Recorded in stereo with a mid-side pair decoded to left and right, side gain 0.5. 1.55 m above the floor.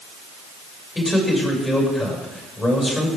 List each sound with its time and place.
0.9 s a man speaking: 15° left, 6.5 m